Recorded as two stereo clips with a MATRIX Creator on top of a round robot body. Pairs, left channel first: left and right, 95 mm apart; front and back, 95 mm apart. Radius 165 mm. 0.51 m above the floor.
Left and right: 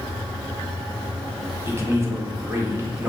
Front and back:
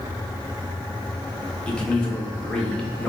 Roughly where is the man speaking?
Right.